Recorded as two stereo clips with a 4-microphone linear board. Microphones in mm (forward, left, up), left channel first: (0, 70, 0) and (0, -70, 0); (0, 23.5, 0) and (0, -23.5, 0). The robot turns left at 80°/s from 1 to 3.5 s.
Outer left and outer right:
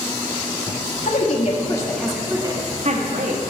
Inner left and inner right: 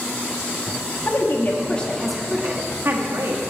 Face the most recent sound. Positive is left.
turn(degrees=-115)